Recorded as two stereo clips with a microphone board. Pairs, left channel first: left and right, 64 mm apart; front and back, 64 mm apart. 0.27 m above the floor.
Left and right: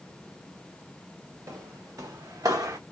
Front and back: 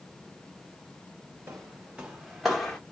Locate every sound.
1.5 s footsteps: 125° right, 1.3 m; by 2.8 s 80° right, 0.9 m